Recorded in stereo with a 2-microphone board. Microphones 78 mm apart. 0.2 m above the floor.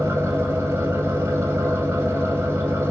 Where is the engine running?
35° right (ahead or behind), 1.1 m.